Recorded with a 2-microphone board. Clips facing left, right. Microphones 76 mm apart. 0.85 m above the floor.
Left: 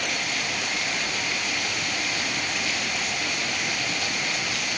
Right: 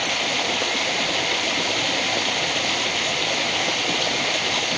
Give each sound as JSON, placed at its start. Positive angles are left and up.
{"t": 0.0, "sound": "running water", "side_deg": -65}